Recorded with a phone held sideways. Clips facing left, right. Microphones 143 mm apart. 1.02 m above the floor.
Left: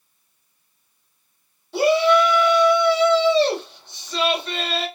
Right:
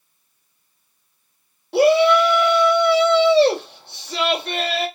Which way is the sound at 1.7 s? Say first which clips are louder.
Right 3 dB; 65° right (ahead or behind).